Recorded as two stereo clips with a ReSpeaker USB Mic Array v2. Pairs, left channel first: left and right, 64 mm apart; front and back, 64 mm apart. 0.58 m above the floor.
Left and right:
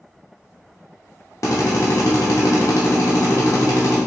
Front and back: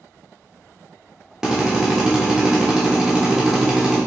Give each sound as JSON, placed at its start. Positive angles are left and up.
{"t": 1.4, "sound": "a drill", "azimuth_deg": 100, "distance_m": 1.0}